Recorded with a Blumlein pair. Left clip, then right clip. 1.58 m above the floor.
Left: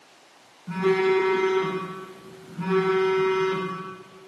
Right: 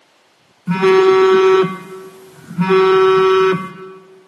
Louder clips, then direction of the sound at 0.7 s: Right 11 dB; 35° right.